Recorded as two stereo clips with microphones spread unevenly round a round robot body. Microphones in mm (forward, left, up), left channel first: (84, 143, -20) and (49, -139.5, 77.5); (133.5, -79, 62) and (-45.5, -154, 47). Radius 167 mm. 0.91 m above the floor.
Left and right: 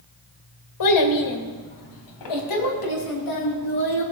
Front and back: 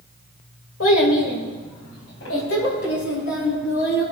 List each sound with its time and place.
0.8 s a child speaking: 65° left, 1.8 m; by 4.0 s 80° left, 4.5 m